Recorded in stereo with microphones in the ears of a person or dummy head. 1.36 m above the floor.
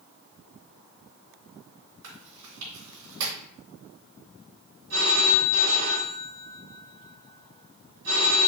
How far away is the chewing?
About 3 m.